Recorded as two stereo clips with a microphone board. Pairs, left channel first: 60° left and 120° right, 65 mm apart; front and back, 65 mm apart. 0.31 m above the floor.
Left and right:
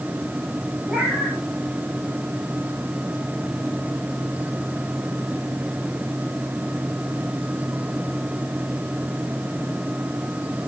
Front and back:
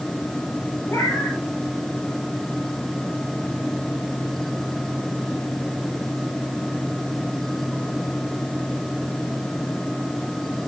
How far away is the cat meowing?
About 5.5 m.